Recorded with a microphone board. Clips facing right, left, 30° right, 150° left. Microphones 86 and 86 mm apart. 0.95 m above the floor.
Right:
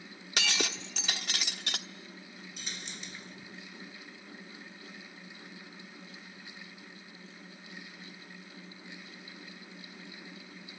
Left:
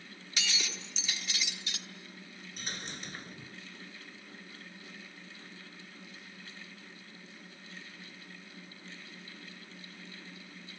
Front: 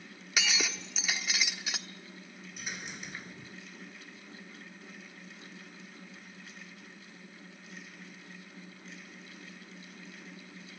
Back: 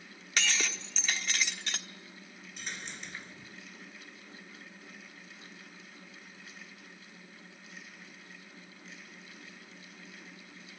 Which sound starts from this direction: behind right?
Breaking glass, at 0.4 s.